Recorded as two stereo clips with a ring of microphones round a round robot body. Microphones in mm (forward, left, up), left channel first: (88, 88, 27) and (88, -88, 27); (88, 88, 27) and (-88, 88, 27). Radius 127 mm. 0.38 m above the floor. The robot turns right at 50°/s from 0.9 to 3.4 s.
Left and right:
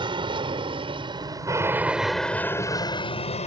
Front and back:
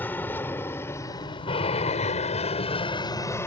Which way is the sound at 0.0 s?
70° right.